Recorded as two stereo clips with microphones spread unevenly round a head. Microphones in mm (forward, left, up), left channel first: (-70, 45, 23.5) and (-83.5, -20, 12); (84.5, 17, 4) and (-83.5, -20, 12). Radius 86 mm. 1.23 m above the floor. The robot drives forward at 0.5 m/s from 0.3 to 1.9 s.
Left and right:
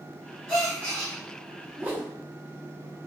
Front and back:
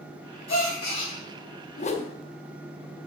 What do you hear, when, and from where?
0.5 s a gasp: 25° right, 3.5 m
1.8 s a whoosh: 20° right, 0.8 m; by 2.1 s 25° right, 0.8 m